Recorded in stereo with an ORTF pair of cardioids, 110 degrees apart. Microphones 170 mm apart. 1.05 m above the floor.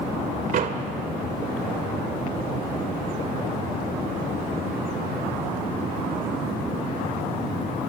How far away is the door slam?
About 2.5 m.